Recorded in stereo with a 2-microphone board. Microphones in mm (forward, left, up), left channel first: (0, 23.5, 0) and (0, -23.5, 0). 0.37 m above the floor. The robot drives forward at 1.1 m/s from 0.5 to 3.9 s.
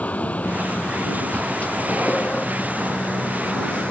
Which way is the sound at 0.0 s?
35° left (ahead or behind).